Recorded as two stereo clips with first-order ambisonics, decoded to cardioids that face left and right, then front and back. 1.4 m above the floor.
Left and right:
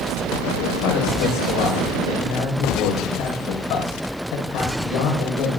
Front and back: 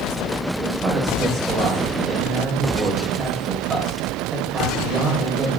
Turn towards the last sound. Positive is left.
turn(degrees=110)